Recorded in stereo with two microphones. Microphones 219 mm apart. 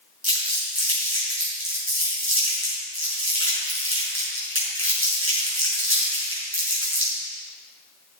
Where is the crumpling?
75° right (ahead or behind), 4.5 m.